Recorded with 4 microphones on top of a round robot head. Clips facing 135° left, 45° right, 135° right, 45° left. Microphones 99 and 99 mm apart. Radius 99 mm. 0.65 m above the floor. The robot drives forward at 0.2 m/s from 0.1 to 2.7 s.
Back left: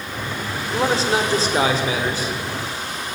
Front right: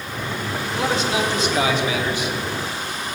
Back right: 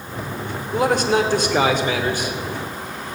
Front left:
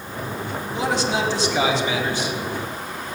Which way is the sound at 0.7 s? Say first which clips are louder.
Back left 3 dB, back right 5 dB; 170° right.